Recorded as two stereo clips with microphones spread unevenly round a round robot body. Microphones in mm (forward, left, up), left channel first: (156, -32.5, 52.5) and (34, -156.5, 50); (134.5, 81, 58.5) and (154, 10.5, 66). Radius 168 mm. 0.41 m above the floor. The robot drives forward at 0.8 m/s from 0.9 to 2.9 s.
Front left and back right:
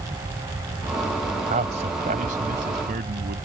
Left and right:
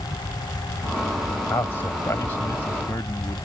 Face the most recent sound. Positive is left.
turn(degrees=170)